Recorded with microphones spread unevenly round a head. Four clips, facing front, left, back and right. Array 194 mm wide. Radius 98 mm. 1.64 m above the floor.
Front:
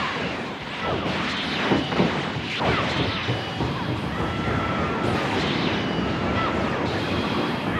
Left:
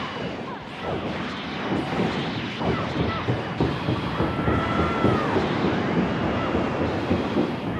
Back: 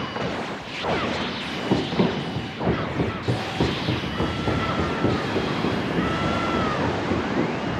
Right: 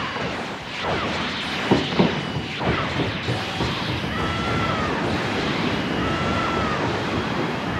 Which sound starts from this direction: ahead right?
Running footsteps, at 1.7 s.